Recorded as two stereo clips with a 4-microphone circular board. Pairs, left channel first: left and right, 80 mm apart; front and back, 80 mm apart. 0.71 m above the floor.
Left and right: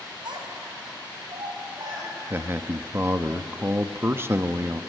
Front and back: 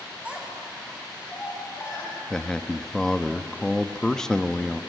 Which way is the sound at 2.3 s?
75° right.